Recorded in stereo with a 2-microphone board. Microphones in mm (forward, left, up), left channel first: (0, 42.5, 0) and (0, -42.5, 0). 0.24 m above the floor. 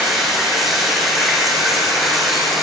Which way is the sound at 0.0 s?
5° right (ahead or behind).